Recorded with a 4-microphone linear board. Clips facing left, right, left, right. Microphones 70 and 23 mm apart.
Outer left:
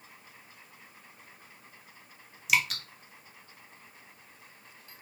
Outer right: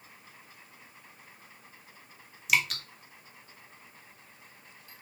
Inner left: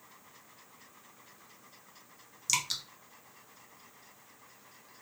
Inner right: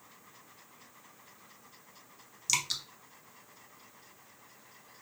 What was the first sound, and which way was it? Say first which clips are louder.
Dripping: even, even; centre (ahead or behind).